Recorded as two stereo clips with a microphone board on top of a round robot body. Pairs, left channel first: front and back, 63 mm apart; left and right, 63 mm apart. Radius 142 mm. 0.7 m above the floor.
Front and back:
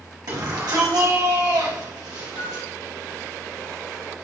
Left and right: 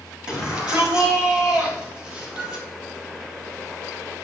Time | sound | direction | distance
0.3 | a shout | 165° right | 6 m
2.4 | a flute | 25° right | 3 m